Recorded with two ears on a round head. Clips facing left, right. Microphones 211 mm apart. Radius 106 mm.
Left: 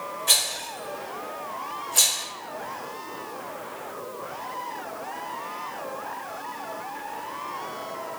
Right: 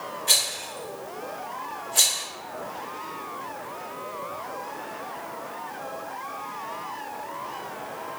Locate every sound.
0.3 s a rattle: 5° left (ahead or behind), 0.7 m